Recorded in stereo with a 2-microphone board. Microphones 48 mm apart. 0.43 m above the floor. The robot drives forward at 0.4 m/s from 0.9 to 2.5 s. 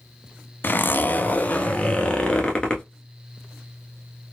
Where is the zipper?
40° left (ahead or behind), 0.5 m; by 2.8 s 20° left (ahead or behind), 1.1 m.